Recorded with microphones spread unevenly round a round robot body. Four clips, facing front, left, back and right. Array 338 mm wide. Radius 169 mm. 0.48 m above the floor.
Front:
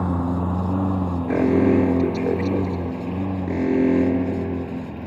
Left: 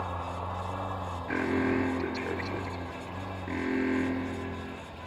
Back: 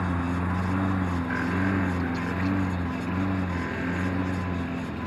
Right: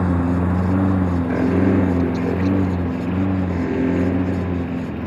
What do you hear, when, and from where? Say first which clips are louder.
0.0 s a lawn mower: right 15 dB, front 5 dB; 70° right; by 5.1 s 90° right
1.3 s an alarm: right 9 dB, front 13 dB; 20° right